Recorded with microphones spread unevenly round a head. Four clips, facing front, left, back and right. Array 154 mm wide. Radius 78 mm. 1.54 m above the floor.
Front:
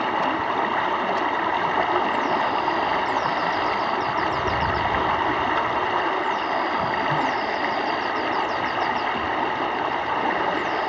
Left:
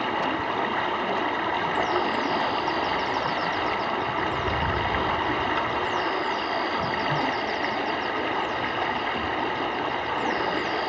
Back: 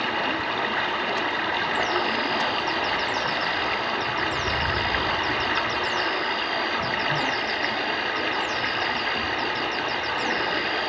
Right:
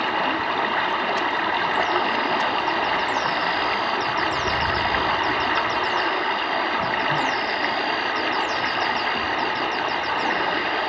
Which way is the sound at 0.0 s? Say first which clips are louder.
Right 3 dB, front 4 dB; 40° right.